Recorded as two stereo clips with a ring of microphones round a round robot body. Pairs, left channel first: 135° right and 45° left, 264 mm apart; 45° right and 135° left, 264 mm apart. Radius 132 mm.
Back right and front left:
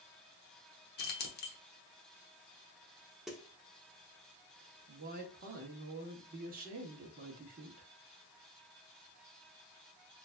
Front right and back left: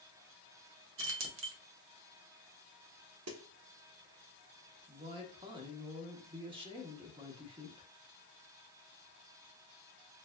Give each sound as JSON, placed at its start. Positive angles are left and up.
{"t": 1.0, "sound": "keys jangling", "azimuth_deg": 175, "distance_m": 0.8}
{"t": 3.3, "sound": "a snare drum", "azimuth_deg": 135, "distance_m": 0.8}
{"t": 4.9, "sound": "a woman speaking", "azimuth_deg": 75, "distance_m": 1.0}